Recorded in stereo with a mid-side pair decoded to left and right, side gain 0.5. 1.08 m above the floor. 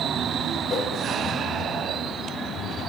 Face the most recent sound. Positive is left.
turn(degrees=45)